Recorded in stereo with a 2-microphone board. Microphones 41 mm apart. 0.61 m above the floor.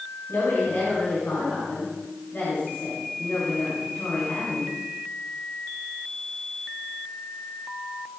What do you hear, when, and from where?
0.3 s a woman speaking: 60° left (ahead or behind), 6 m